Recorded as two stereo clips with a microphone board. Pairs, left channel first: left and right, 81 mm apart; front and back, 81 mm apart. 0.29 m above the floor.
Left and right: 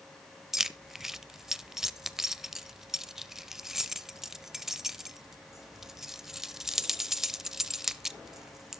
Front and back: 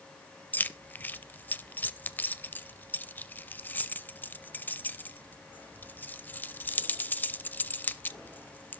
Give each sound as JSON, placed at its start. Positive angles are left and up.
{"t": 0.5, "sound": "keys jangling", "azimuth_deg": -15, "distance_m": 0.6}